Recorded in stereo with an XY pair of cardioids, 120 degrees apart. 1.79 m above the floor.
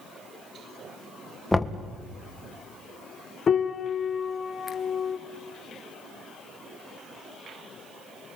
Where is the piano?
35° left, 1.6 m.